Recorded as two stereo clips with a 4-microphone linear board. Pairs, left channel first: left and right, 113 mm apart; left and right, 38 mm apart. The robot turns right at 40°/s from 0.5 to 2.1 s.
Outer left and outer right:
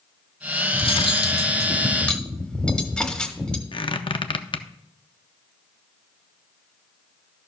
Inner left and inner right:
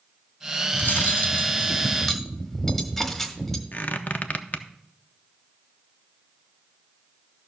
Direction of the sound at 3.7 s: 50° left (ahead or behind).